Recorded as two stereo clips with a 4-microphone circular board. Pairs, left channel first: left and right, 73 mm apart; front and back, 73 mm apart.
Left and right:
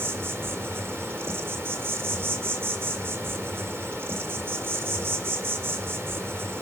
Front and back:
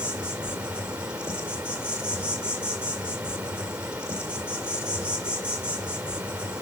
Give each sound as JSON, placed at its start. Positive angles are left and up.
{"t": 0.0, "sound": "an insect", "azimuth_deg": -115, "distance_m": 1.8}